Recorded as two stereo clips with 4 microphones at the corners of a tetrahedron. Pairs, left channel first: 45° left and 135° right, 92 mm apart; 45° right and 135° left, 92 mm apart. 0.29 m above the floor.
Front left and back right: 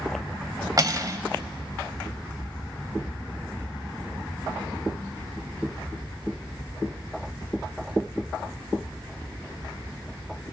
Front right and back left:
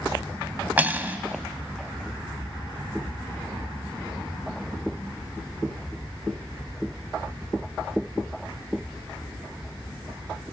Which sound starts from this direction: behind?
Cutlery clinking, at 0.8 s.